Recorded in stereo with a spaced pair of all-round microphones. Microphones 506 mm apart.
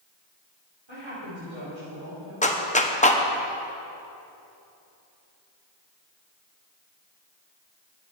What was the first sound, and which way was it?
A woman speaking, 60° right (ahead or behind).